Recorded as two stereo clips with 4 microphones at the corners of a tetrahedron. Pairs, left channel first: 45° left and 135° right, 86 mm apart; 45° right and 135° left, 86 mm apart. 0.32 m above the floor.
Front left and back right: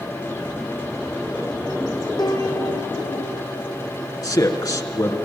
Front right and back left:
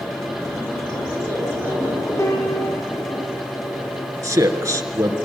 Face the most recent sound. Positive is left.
turn(degrees=85)